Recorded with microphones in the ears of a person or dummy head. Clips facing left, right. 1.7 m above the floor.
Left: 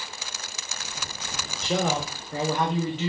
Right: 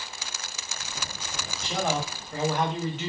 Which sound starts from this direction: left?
A man speaking, at 1.6 s.